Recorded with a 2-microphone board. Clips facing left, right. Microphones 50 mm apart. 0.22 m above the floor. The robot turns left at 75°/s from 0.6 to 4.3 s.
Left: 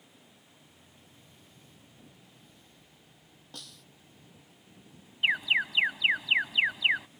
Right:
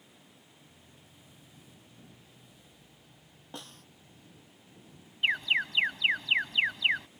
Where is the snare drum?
25° right (ahead or behind); by 3.9 s 50° right (ahead or behind).